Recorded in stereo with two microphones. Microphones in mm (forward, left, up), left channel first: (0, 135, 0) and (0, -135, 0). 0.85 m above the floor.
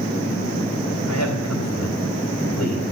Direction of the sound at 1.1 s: 80° left.